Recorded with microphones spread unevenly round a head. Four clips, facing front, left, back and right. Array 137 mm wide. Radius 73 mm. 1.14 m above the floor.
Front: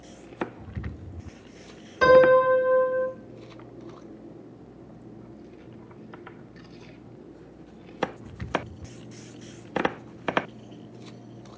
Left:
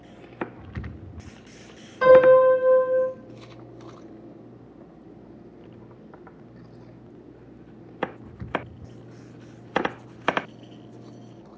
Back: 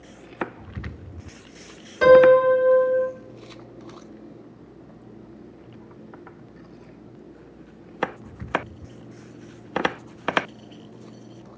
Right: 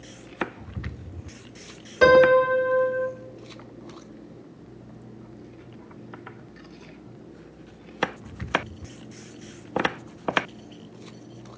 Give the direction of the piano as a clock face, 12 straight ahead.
3 o'clock.